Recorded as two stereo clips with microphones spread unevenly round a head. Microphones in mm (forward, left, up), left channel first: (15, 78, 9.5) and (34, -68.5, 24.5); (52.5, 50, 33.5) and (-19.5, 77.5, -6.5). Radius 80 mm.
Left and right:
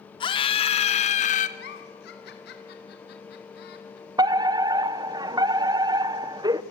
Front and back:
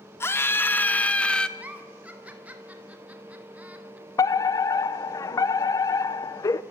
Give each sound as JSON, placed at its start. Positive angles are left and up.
{"t": 0.2, "sound": "a scream", "azimuth_deg": 40, "distance_m": 3.0}
{"t": 1.6, "sound": "a giggle", "azimuth_deg": 90, "distance_m": 4.0}
{"t": 4.2, "sound": "a fire alarm", "azimuth_deg": -85, "distance_m": 1.0}